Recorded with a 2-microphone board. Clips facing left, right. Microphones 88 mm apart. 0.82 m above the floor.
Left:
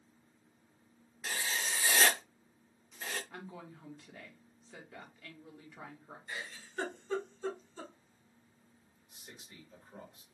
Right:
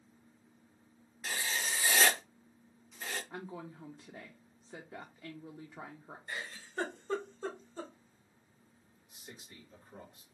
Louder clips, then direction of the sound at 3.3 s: Right 3 dB; 20° right (ahead or behind).